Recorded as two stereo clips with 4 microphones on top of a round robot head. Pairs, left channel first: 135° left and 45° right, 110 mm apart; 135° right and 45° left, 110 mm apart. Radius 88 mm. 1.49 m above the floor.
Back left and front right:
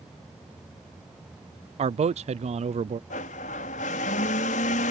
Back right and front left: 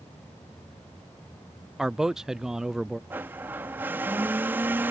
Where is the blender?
120° left.